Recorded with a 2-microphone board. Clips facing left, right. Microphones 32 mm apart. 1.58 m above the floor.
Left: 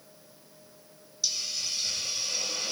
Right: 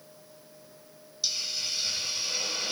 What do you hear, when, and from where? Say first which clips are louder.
1.2 s a hiss: right 1 dB; 25° right (ahead or behind), 0.9 m